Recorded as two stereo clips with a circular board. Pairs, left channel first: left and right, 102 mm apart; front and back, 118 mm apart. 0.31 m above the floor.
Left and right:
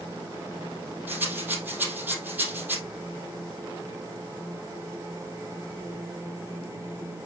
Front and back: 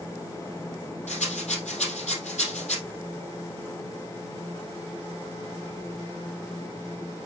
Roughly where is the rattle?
Ahead.